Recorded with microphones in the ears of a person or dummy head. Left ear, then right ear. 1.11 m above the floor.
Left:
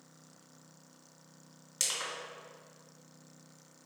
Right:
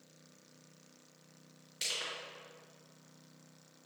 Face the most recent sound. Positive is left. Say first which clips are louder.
# left 2 dB
turn(degrees=65)  # may be behind; listen again after turning